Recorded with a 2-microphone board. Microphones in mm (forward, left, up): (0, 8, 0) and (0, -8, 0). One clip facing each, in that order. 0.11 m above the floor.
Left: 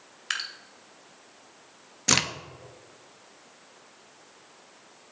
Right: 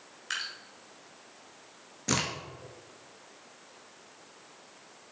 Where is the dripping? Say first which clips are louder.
Left 3 dB; 30° left (ahead or behind), 1.5 m.